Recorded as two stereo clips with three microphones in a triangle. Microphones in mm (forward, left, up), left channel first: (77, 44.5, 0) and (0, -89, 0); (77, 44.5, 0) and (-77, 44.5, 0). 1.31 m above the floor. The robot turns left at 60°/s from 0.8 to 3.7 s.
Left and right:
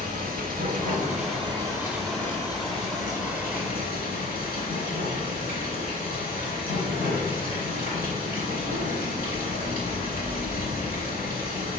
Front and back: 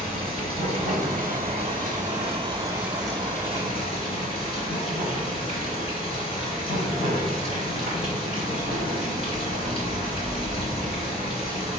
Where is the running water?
135° right, 3.5 m; by 11.8 s 50° left, 3.5 m.